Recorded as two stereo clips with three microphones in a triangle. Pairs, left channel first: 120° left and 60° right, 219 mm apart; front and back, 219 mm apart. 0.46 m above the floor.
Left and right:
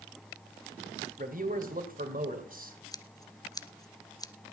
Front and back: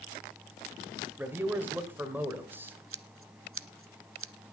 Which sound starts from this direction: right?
A man speaking, at 1.2 s.